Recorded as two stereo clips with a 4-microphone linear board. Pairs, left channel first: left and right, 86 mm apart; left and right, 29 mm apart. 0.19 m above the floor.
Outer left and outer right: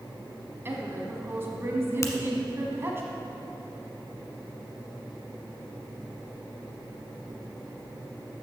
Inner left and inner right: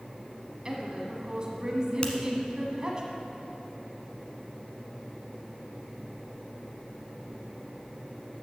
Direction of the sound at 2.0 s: 35° left (ahead or behind).